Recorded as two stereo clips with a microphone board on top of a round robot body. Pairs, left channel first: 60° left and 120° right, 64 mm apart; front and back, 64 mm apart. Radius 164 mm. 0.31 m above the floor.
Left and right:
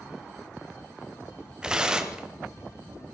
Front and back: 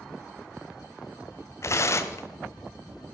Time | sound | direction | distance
1.6 | tearing paper | 40° right | 1.0 m